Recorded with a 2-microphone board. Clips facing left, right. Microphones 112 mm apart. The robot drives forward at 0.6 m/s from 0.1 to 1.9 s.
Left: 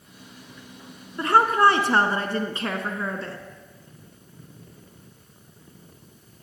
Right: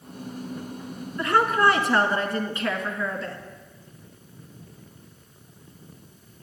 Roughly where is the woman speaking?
Left.